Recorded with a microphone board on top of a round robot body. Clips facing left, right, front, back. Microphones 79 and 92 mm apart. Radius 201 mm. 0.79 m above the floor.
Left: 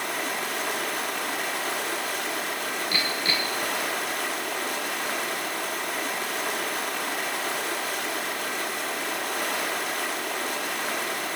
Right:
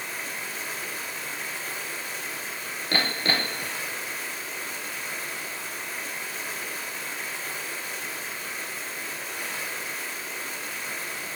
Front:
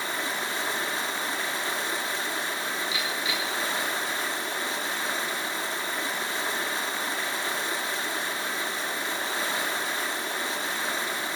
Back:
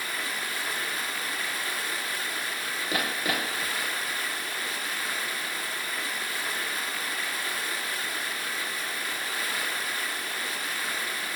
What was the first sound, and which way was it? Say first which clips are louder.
Running water: left 6 dB, front 3 dB; 65° left.